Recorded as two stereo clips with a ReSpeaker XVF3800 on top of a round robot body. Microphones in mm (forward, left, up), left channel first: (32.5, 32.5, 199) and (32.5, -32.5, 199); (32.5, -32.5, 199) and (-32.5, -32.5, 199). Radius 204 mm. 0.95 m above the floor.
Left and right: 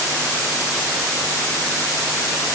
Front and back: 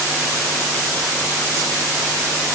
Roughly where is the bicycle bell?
No bicycle bell in this recording.